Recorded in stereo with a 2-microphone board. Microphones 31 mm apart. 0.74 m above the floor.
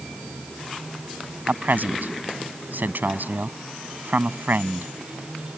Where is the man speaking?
70° right (ahead or behind).